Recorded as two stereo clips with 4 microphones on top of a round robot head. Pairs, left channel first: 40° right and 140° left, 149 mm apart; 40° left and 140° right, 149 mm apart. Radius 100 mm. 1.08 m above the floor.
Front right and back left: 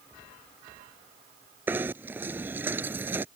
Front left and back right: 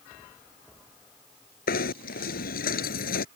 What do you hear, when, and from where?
1.7 s knocking: 60° left